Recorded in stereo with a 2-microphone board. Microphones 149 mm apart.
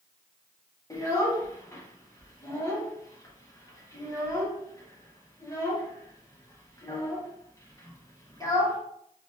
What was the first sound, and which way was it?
A child speaking, 20° left (ahead or behind).